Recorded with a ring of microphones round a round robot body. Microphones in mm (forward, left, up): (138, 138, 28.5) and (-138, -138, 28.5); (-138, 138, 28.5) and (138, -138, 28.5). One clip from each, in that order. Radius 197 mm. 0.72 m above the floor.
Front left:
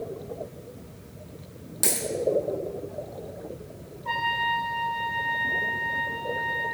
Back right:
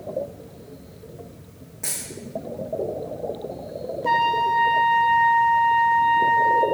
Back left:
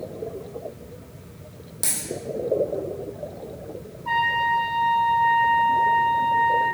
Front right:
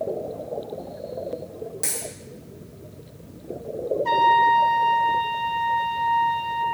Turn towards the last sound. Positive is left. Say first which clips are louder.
# back right 6 dB, front right 4 dB
turn(degrees=-85)